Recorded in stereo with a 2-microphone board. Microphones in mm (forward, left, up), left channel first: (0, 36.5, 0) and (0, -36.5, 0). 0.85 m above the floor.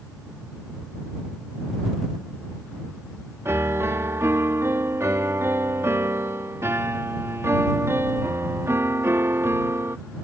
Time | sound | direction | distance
3.5 | a piano | 40° right (ahead or behind) | ?